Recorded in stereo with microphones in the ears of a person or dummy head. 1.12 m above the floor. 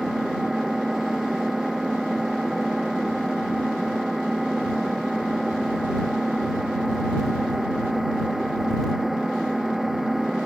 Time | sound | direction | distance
0.0 | an engine running | 5° right (ahead or behind) | ?